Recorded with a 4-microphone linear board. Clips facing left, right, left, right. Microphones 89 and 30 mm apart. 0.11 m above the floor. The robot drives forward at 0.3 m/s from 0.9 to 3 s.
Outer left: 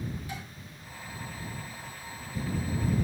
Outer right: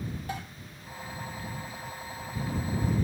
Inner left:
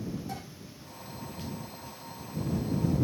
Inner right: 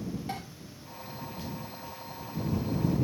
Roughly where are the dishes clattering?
Right.